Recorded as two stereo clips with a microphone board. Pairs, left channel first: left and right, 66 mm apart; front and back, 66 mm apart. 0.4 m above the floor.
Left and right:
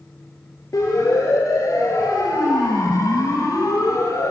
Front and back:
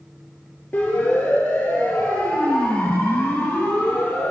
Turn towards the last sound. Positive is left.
turn(degrees=65)